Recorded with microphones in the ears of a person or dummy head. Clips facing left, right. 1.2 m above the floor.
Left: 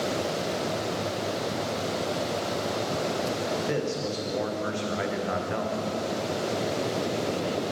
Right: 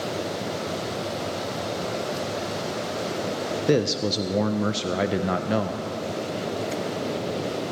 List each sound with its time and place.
3.7 s a man speaking: 50° right (ahead or behind), 0.8 m